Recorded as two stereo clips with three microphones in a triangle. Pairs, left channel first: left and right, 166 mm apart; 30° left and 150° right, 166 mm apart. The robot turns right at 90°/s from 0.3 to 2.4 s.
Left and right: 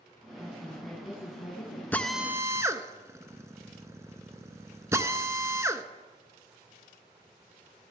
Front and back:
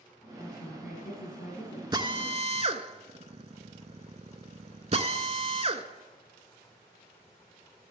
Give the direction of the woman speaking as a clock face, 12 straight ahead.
1 o'clock.